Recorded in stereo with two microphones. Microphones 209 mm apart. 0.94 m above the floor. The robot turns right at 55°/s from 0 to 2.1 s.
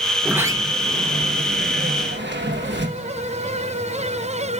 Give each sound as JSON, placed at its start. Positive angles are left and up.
{"t": 0.2, "sound": "a sliding door", "azimuth_deg": -175, "distance_m": 1.1}